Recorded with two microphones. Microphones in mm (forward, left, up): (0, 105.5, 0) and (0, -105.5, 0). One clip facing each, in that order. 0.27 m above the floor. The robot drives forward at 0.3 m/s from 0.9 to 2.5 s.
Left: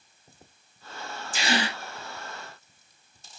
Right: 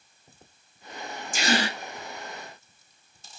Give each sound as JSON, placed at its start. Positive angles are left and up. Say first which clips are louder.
{"t": 1.3, "sound": "a gasp", "louder": "right 2 dB", "side_deg": -45, "distance_m": 0.8}